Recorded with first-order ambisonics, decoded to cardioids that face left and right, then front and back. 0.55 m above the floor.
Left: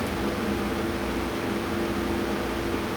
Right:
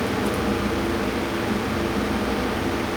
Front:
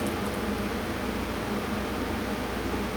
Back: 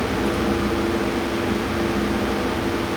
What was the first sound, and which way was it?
Only background noise.